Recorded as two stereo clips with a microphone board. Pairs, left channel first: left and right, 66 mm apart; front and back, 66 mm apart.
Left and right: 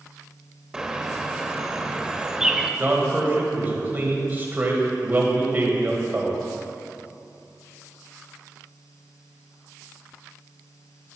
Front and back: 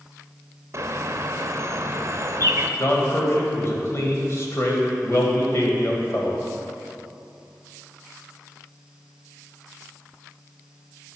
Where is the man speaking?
35° right, 2 m.